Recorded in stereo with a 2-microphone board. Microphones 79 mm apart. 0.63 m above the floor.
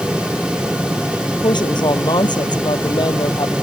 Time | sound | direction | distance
1.4 | a woman speaking | 70° left (ahead or behind) | ?